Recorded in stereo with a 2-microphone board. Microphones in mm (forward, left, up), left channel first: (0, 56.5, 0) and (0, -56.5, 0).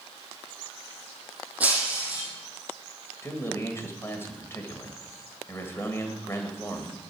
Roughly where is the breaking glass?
Centre.